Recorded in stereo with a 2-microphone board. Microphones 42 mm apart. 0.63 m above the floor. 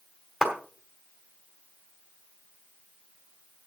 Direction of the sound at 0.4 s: 15° right (ahead or behind).